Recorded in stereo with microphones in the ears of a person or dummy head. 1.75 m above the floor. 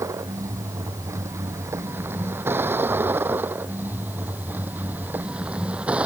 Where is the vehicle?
15° right (ahead or behind); by 6.1 s 10° right (ahead or behind).